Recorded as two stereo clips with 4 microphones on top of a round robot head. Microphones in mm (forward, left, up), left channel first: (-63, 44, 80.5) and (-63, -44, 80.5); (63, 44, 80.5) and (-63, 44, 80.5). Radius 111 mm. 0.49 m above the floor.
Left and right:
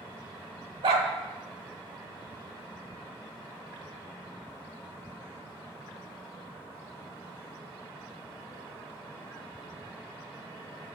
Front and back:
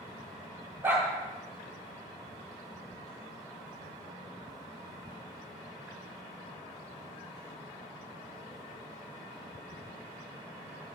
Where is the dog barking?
105° right, 0.8 m.